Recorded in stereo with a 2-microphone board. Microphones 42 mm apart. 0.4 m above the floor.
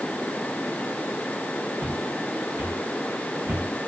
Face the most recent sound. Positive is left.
turn(degrees=-45)  # may be behind; listen again after turning